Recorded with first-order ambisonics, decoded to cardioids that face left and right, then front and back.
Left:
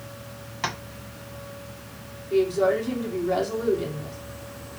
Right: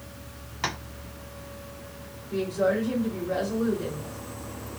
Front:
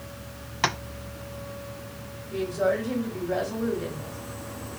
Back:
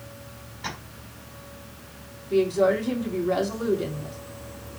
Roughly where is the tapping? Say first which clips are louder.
Left 1 dB, front 9 dB; ahead.